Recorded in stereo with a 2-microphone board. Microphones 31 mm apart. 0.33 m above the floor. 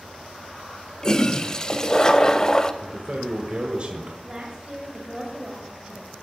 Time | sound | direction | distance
1.0 | a toilet flushing | 20° left (ahead or behind) | 0.6 m
2.8 | a man speaking | 35° right (ahead or behind) | 1.3 m
4.2 | a woman speaking | 25° right (ahead or behind) | 1.6 m